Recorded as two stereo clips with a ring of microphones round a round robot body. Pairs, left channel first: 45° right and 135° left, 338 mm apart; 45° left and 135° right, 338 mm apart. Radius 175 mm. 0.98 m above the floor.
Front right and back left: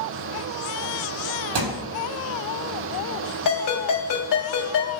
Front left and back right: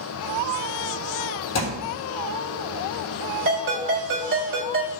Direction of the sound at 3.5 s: 80° right.